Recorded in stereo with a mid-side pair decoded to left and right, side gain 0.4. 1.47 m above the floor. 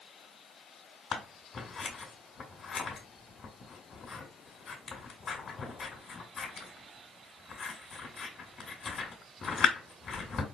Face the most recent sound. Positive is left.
turn(degrees=55)